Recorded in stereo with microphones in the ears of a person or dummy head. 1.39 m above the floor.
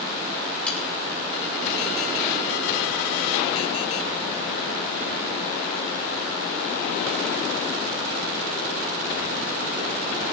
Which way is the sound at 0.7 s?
Centre (ahead or behind).